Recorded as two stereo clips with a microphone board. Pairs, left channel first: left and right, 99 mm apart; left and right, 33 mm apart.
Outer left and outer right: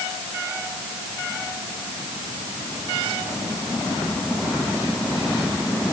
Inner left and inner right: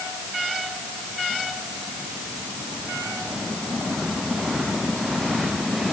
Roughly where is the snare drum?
I don't hear a snare drum.